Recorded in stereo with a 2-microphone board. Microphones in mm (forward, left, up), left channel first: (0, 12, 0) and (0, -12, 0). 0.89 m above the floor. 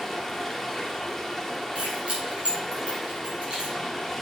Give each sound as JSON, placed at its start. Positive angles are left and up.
{"t": 0.0, "sound": "running water", "side_deg": 0, "distance_m": 1.5}
{"t": 1.8, "sound": "keys jangling", "side_deg": -50, "distance_m": 5.0}